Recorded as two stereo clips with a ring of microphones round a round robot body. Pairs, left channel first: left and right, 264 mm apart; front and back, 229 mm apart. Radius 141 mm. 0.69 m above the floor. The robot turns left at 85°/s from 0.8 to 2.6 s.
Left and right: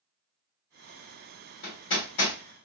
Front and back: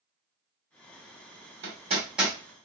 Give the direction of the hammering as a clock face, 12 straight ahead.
7 o'clock.